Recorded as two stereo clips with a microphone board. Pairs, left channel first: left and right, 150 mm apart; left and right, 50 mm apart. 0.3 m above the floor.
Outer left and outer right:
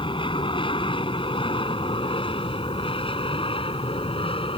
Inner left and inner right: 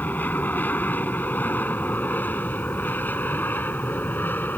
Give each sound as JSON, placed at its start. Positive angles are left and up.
{"t": 0.0, "sound": "an aircraft", "side_deg": 30}